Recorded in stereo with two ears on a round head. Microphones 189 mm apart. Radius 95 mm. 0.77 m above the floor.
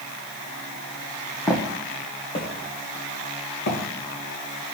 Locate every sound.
1.5 s footsteps: 15° left (ahead or behind), 1.3 m; by 3.8 s 50° left (ahead or behind), 3.5 m